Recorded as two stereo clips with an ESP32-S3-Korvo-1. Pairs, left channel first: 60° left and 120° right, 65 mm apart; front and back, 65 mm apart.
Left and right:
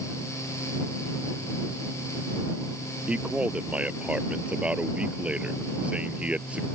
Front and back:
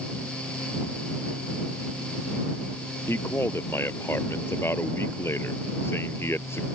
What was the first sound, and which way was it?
A man speaking, 50° right.